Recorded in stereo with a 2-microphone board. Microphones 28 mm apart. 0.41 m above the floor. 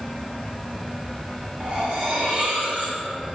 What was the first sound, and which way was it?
Cutlery clinking, 45° right (ahead or behind).